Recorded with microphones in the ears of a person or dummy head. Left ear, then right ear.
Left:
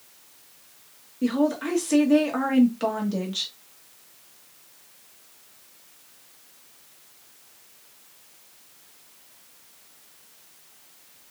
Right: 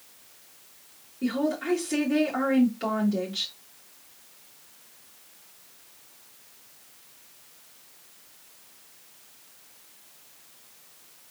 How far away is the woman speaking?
About 1.5 m.